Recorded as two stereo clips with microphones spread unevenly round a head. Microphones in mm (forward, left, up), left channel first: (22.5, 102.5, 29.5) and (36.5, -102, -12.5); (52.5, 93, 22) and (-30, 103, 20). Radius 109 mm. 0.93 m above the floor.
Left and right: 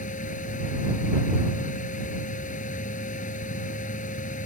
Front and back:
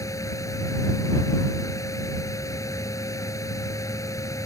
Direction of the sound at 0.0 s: 40° left.